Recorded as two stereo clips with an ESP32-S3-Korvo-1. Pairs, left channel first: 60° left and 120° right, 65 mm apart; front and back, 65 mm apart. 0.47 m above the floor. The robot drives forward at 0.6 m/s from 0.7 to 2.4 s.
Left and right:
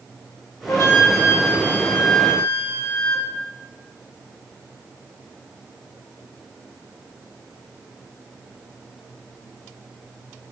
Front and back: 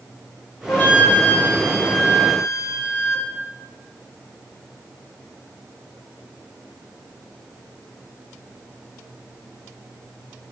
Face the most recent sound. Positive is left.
turn(degrees=90)